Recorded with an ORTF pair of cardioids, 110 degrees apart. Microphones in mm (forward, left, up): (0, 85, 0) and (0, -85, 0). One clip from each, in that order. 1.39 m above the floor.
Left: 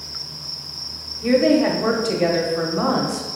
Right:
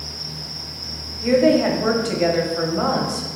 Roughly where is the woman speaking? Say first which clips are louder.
Right 1 dB; ahead.